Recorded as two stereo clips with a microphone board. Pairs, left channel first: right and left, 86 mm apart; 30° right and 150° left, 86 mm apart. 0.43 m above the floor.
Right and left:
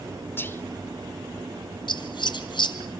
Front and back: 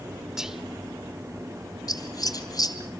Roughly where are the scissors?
Right.